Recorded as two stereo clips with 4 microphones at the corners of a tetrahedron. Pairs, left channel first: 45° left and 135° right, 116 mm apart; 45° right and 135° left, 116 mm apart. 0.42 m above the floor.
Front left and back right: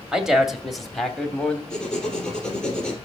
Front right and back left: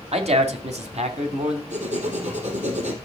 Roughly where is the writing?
Behind left.